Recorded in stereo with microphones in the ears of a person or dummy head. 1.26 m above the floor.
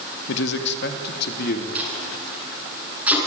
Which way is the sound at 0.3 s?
70° left (ahead or behind).